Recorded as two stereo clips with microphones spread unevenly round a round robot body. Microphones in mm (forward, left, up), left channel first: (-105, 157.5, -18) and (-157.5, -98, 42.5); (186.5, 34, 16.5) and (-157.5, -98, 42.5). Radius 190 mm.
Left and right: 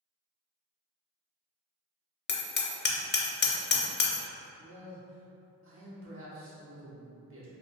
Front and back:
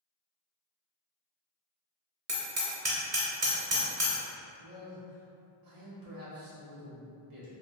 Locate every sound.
2.3 s hammering: 135° left, 0.6 m
4.6 s a man speaking: 145° right, 1.1 m